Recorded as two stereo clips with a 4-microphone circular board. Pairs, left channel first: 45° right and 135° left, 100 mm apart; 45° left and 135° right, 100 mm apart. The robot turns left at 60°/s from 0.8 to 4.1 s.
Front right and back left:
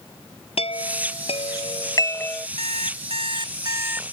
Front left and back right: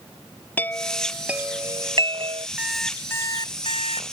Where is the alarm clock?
145° left; by 4.0 s 60° left.